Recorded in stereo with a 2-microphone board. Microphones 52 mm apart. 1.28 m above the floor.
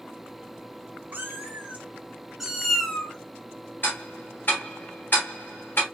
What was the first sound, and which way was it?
A cat meowing, 40° right (ahead or behind).